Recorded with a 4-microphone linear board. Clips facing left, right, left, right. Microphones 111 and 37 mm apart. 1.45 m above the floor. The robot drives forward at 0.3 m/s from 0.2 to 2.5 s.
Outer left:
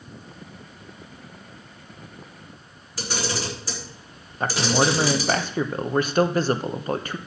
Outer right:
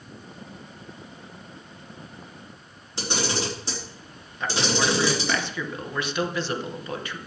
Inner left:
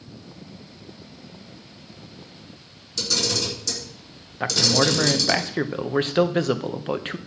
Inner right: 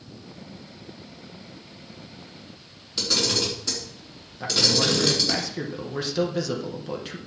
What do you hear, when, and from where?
3.0 s a camera shutter: 25° right (ahead or behind), 3.5 m
4.4 s a man speaking: 45° left (ahead or behind), 0.8 m